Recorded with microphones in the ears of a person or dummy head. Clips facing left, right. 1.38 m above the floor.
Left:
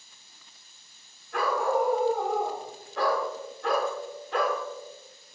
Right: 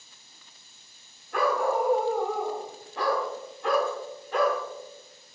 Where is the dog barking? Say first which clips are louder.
Right 1 dB; 30° right (ahead or behind), 1.1 m; by 4.6 s 10° right (ahead or behind), 2.0 m.